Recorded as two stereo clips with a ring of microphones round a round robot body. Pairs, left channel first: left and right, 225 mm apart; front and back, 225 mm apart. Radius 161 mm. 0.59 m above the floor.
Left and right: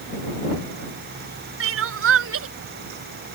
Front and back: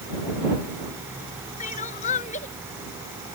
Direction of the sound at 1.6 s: 70° right.